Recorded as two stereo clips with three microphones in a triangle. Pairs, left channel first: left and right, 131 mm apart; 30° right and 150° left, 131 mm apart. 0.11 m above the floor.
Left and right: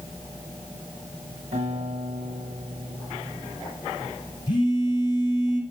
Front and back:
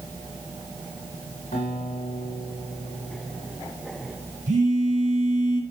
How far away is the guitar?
About 6 m.